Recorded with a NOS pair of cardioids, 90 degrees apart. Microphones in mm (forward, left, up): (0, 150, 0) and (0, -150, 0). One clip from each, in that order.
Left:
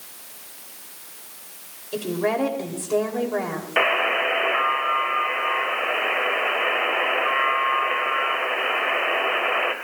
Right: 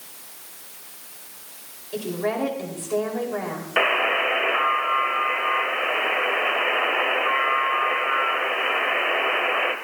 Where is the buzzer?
Straight ahead, 2.5 m.